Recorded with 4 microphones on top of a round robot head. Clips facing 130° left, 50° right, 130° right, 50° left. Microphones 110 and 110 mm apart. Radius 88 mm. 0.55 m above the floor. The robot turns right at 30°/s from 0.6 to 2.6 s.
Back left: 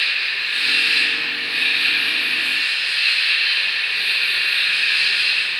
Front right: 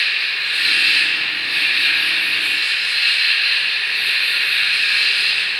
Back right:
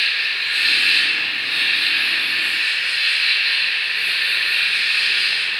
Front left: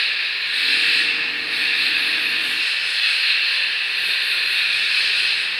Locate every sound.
0.0 s an insect: 85° right, 1.3 m; by 5.6 s 25° right, 1.3 m